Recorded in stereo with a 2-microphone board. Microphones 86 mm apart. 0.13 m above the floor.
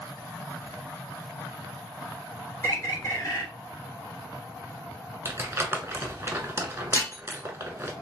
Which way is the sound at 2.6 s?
35° left (ahead or behind).